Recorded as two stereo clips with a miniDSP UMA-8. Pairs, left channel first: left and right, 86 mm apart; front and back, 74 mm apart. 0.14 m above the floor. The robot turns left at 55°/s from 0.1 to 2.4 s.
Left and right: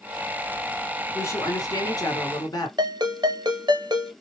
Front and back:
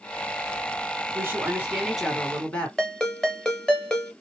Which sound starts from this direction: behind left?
A woman speaking, at 1.1 s.